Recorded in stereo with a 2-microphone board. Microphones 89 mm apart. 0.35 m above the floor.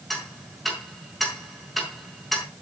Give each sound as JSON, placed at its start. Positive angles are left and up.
{"t": 0.1, "sound": "ticking", "side_deg": 0, "distance_m": 5.0}